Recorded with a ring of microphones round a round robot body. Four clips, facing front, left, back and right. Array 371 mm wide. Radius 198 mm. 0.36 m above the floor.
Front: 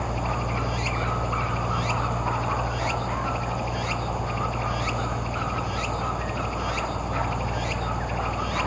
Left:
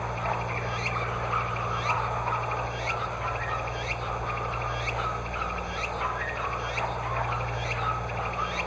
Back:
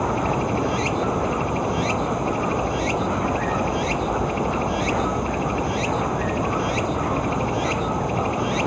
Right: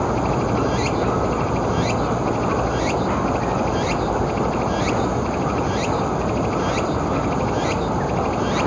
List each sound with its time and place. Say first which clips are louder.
0.0 s running water: right 10 dB, back 6 dB; 115° right